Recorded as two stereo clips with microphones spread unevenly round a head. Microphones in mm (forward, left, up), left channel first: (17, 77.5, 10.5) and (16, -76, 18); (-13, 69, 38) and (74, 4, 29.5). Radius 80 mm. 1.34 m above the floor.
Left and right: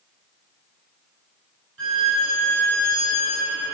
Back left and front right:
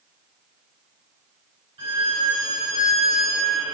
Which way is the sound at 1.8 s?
95° right.